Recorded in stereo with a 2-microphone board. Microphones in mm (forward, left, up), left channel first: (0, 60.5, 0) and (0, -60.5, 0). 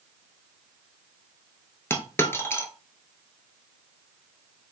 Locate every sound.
1.9 s a dropped coin: 20° left (ahead or behind), 0.7 m